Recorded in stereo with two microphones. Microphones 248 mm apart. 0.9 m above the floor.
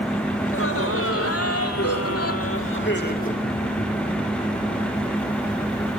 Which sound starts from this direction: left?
Laughter, at 0.4 s.